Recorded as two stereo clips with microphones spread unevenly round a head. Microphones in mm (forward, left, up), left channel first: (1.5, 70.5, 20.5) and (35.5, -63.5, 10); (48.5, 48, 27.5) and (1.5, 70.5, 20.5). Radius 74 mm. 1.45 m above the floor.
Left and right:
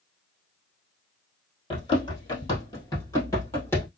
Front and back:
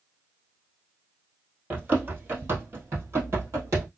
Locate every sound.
1.7 s running footsteps: 110° left, 1.7 m; by 3.9 s 170° left, 1.9 m